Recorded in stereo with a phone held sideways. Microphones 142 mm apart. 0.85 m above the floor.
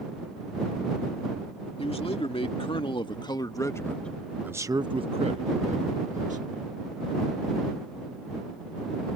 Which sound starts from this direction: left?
A man speaking, at 1.8 s.